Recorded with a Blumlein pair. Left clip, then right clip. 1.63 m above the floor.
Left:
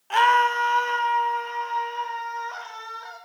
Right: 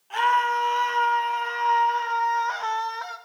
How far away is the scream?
About 1.4 m.